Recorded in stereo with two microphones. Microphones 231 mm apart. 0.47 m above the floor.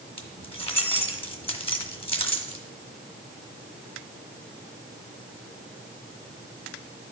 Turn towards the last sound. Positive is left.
turn(degrees=25)  # may be behind; listen again after turning